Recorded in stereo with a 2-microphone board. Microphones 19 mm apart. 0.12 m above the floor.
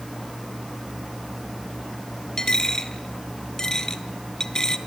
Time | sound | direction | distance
2.4 | a dropped coin | 30° left (ahead or behind) | 1.0 m